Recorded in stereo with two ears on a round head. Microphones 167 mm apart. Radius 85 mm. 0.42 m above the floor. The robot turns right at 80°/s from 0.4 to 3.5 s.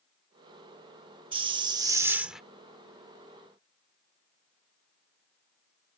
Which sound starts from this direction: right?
A hiss, at 1.3 s.